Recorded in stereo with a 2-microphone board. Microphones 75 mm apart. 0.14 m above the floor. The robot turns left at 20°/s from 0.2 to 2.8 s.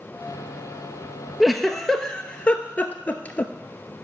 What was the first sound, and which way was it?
A giggle, centre (ahead or behind).